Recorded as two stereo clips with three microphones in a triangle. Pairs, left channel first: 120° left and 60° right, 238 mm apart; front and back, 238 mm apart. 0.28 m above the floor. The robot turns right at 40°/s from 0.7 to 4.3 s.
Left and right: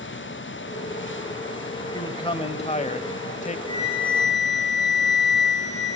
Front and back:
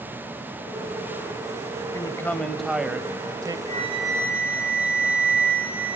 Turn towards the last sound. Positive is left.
turn(degrees=-95)